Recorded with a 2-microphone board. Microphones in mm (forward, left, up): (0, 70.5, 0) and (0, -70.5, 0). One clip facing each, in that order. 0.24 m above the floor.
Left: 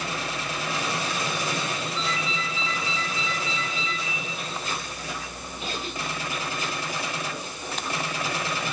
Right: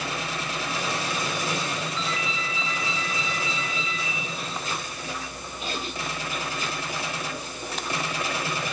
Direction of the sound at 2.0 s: 20° right (ahead or behind).